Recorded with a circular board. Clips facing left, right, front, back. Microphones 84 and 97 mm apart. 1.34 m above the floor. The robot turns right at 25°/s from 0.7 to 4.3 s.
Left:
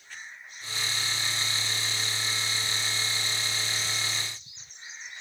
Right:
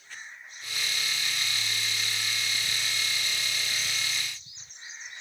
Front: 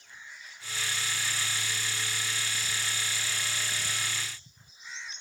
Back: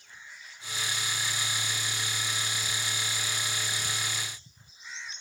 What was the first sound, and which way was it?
Only background noise.